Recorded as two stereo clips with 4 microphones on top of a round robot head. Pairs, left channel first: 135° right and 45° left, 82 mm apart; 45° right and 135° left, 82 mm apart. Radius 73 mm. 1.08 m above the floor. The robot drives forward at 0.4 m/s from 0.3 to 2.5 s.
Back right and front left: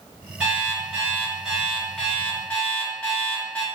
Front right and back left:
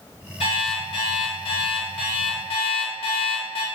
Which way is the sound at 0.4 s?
30° right.